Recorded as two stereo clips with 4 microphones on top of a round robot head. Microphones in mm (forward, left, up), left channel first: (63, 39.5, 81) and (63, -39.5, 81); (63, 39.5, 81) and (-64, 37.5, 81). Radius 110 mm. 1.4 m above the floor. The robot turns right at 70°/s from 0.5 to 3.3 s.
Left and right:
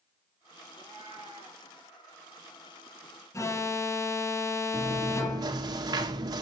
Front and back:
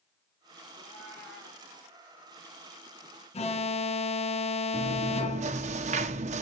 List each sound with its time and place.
0.7 s a cat meowing: 125° right, 2.5 m; by 1.6 s 60° right, 2.5 m
3.3 s an alarm: 40° left, 1.4 m
4.7 s chewing: 140° right, 0.7 m